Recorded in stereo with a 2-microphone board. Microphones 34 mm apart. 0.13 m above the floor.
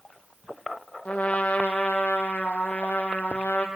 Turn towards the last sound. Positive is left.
turn(degrees=50)  # may be behind; listen again after turning